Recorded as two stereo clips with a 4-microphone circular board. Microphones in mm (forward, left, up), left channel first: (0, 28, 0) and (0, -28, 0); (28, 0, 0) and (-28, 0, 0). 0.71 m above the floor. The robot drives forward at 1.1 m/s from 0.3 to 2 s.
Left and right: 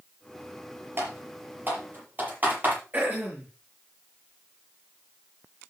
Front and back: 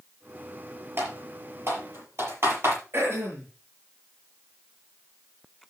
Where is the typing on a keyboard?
140° right, 5.5 m; by 2.7 s 145° right, 6 m.